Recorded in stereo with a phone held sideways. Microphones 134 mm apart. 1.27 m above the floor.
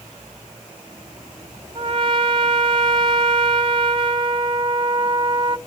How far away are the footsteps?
I don't hear footsteps.